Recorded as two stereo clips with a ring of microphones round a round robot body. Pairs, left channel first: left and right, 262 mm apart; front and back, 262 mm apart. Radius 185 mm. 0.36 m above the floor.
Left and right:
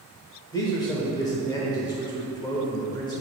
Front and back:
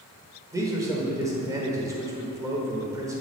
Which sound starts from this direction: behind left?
A man speaking, at 0.5 s.